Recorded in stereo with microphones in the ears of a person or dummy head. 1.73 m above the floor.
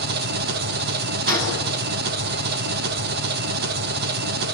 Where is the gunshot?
45° right (ahead or behind), 10 m.